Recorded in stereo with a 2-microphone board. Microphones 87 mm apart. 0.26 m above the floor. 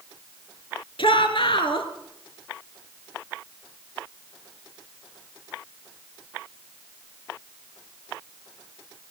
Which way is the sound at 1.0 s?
75° left (ahead or behind).